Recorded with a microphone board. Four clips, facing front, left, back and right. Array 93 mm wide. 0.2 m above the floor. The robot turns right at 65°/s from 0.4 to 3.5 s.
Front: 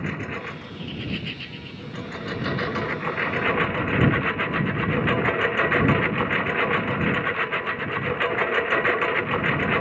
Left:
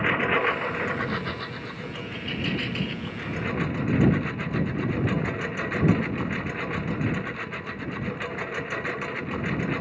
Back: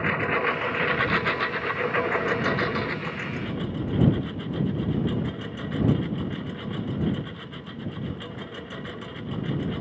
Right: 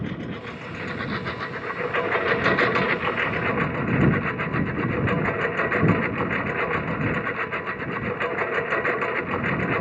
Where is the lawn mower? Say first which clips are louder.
Left 9 dB, back 6 dB; 125° left; by 9.8 s 30° right.